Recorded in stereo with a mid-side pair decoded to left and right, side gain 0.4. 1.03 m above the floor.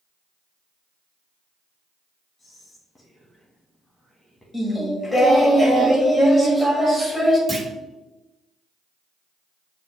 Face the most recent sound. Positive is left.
turn(degrees=-40)